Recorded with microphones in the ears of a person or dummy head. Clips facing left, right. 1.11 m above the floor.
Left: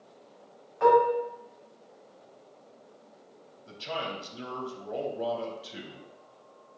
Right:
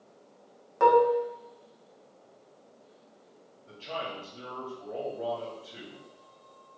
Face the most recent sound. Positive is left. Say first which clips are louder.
# left 2 dB
turn(degrees=55)  # may be behind; listen again after turning